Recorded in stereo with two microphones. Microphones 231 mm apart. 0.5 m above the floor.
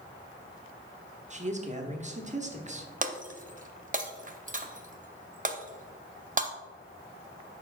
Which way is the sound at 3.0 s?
35° right (ahead or behind).